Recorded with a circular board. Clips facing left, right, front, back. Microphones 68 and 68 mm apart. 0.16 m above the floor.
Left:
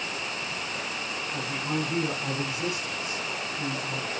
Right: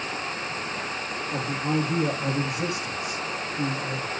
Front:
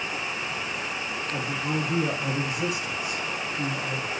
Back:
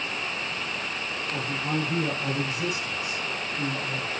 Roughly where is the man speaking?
Right.